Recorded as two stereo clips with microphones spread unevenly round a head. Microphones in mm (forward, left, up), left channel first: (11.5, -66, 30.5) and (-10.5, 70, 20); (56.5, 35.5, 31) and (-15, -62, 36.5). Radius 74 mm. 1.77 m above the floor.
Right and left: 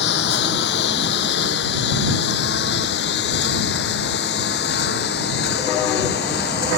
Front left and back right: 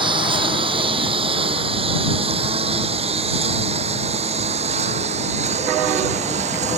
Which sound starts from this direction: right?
A lawn mower, at 0.0 s.